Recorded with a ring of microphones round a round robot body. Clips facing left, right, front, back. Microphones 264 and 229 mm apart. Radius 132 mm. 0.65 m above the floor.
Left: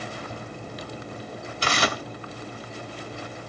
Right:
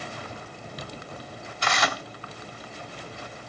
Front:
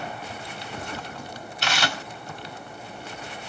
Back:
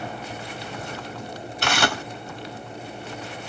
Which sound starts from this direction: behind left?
Tearing paper, at 1.6 s.